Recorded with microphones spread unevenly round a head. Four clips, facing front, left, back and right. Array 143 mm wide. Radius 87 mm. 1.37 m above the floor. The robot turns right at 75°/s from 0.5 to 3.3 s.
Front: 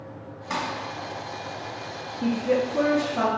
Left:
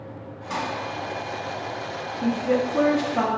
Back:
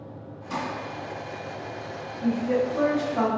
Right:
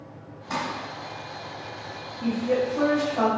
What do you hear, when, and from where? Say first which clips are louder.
0.5 s crumpling: left 1 dB, front 2 dB; 10° right, 1.9 m; by 0.6 s straight ahead, 1.9 m
2.2 s a woman speaking: left 1 dB, front 1 dB; 15° left, 0.8 m; by 3.3 s 95° left, 0.8 m